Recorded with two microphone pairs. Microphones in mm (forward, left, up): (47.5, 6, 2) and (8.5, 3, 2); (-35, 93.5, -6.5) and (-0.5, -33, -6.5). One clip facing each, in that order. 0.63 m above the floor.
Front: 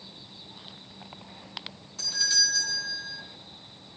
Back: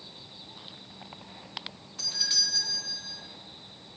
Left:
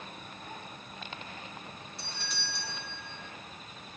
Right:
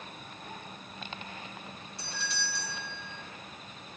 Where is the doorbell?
115° left, 2 m.